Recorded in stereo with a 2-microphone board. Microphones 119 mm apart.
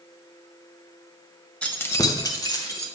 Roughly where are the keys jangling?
Centre.